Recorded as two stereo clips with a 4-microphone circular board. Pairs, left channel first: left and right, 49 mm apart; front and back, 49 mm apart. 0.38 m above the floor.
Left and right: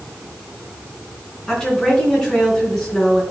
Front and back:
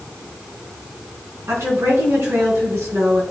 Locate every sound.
1.5 s a woman speaking: 170° left, 3.5 m